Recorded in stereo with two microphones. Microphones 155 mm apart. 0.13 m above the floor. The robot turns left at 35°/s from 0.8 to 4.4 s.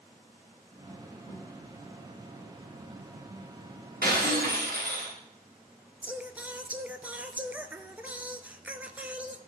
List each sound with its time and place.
1.3 s a thud: 55° left (ahead or behind), 6 m; by 1.4 s 45° left (ahead or behind), 6 m
4.0 s breaking glass: 70° right (ahead or behind), 4.5 m; by 5.2 s 85° right, 4.5 m
6.0 s singing: 10° right (ahead or behind), 0.6 m